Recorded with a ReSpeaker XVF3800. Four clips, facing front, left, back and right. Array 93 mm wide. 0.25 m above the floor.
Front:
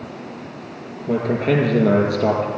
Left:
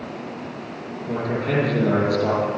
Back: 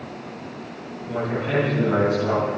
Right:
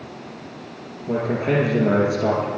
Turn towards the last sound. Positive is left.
turn(degrees=-25)